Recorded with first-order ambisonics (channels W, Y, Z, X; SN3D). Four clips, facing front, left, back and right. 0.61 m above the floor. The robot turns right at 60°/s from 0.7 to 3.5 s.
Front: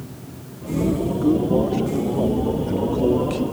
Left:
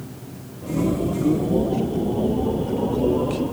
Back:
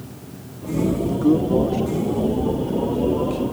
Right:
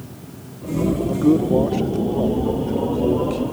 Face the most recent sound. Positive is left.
turn(degrees=30)